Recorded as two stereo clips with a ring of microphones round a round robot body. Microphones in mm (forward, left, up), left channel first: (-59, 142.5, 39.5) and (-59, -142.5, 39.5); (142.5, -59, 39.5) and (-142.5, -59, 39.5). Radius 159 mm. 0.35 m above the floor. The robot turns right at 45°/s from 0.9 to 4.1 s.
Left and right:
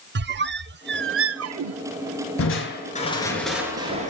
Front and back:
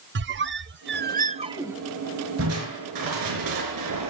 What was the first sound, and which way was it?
A squeak, 135° right.